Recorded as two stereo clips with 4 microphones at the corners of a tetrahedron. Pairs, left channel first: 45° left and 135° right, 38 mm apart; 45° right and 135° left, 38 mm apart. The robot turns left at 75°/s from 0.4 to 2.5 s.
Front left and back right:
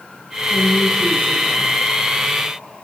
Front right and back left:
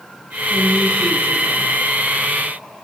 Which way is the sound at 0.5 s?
145° left.